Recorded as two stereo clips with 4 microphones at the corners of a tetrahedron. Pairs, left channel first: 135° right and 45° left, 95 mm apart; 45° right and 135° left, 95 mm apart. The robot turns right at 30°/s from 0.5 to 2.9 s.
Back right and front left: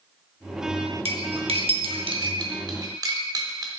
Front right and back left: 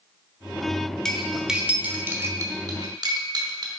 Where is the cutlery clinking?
40° left, 0.8 m; by 3.7 s 95° left, 0.8 m.